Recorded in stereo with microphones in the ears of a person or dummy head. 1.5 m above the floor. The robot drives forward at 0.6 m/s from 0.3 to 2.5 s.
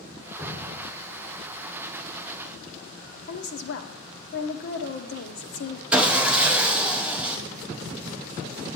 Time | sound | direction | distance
0.4 | dripping | 15° right (ahead or behind) | 5 m
3.3 | a woman speaking | 55° left (ahead or behind) | 0.9 m
5.9 | sawing | 5° right (ahead or behind) | 0.7 m